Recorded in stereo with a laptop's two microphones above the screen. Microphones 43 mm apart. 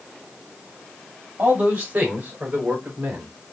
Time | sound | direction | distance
1.4 | a man speaking | 55° right (ahead or behind) | 3 m